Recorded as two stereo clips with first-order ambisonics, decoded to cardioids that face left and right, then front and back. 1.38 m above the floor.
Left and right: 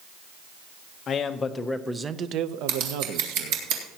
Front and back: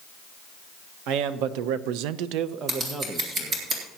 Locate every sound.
1.1 s a man speaking: 150° left, 1.1 m; by 3.6 s 85° right, 1.2 m
2.7 s scissors: 115° right, 2.5 m